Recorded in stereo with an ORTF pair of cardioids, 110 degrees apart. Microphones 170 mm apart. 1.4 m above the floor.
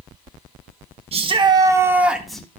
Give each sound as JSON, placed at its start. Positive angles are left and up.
{"t": 1.1, "sound": "a shout", "azimuth_deg": -35, "distance_m": 1.7}